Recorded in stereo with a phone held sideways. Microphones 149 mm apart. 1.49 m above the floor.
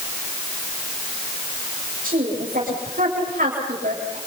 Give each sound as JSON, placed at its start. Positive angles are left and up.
{"t": 2.0, "sound": "a woman speaking", "side_deg": -80, "distance_m": 7.5}